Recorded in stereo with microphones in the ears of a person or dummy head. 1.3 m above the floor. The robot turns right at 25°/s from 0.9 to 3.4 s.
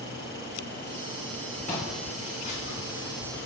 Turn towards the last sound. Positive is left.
turn(degrees=60)  # may be behind; listen again after turning